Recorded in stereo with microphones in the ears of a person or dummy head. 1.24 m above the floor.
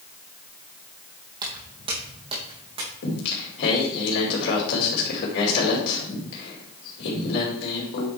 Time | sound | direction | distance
1.4 | footsteps | 25° right (ahead or behind) | 3 m
3.0 | singing | 65° left (ahead or behind) | 2.5 m